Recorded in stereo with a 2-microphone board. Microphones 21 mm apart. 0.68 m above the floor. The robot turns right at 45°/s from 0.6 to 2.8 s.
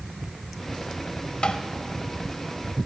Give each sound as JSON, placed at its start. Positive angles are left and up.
{"t": 1.4, "sound": "tapping", "side_deg": 65, "distance_m": 0.9}